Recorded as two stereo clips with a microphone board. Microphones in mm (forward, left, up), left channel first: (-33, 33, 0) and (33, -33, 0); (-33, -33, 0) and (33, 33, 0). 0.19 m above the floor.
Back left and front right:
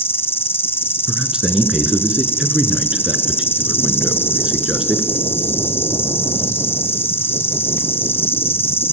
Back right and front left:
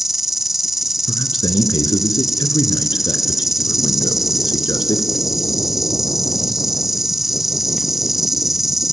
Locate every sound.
0.0 s an insect: 130° left, 0.8 m
1.1 s a man speaking: 125° right, 2.5 m